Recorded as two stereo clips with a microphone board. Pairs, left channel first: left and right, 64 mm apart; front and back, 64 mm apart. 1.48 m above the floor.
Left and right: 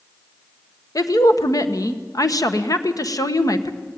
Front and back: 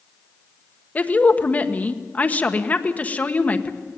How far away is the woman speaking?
About 1.4 m.